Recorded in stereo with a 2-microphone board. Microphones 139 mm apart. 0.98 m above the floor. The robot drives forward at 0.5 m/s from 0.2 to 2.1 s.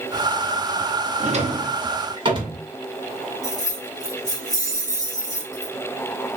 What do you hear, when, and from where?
1.2 s a drawer: 55° right (ahead or behind), 0.7 m; by 2.6 s 35° right (ahead or behind), 1.0 m
3.4 s keys jangling: 20° left (ahead or behind), 1.8 m